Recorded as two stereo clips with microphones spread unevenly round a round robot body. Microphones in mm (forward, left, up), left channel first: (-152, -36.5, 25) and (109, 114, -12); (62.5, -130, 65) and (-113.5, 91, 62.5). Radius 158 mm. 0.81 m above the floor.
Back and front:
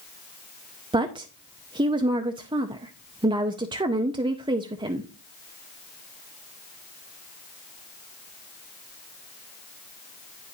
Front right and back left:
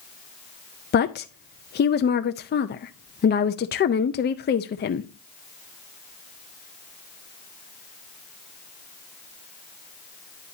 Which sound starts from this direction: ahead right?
A woman speaking, at 0.9 s.